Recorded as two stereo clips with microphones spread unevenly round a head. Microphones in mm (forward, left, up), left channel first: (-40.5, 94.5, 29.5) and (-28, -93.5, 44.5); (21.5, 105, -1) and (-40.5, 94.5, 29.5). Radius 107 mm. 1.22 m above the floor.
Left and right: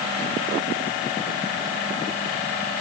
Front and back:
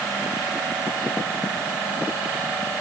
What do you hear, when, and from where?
Only background noise.